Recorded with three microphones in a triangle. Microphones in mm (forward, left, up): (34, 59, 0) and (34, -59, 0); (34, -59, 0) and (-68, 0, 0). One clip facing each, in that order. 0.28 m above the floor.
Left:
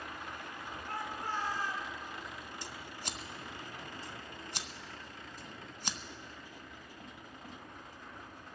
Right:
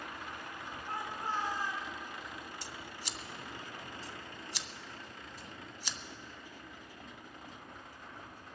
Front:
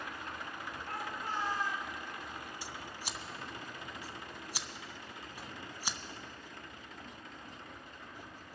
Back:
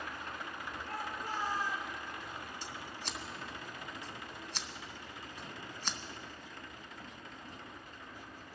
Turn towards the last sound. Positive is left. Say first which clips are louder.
# left 1 dB, even
turn(degrees=50)